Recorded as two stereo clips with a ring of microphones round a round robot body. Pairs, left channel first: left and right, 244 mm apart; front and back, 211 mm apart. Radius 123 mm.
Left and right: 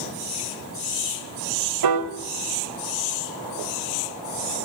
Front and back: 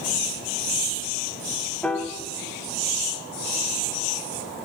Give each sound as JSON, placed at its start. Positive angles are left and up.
{"t": 1.8, "sound": "a piano", "azimuth_deg": -85, "distance_m": 0.5}